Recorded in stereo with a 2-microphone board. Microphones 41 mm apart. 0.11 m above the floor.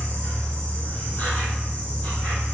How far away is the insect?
About 1.7 m.